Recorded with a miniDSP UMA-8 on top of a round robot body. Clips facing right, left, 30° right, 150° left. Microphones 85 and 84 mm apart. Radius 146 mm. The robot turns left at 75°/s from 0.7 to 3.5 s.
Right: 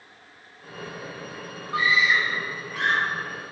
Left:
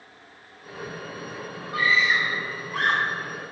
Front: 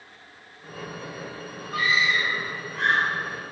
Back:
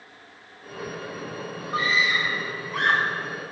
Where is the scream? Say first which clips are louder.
Right 1 dB, even; 150° right, 4 m; by 3.0 s 115° left, 4 m.